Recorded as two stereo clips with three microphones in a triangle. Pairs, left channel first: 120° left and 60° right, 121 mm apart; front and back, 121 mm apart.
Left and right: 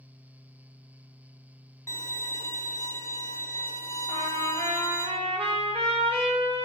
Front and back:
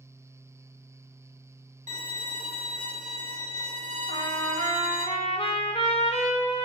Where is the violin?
175° right, 2 m.